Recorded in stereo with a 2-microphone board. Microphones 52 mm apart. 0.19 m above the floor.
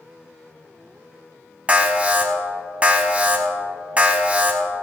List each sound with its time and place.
1.7 s an alarm: 25° right (ahead or behind), 1.5 m